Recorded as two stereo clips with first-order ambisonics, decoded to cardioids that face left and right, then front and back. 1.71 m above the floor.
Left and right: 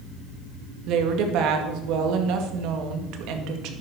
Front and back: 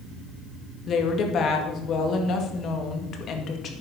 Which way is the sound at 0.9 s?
60° right.